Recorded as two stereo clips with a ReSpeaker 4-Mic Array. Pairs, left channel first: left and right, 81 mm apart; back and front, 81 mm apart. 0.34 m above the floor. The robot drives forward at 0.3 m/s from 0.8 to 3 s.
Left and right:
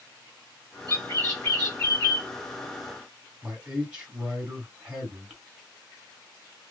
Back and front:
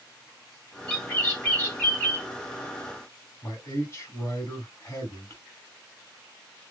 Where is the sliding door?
I don't hear a sliding door.